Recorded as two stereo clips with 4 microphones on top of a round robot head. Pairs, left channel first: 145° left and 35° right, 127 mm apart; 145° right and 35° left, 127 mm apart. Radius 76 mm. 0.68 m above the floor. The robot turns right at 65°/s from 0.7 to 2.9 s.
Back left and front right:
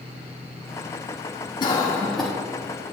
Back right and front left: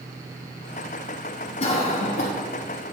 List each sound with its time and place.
1.6 s a cough: 165° right, 0.9 m; by 2.3 s 120° right, 0.9 m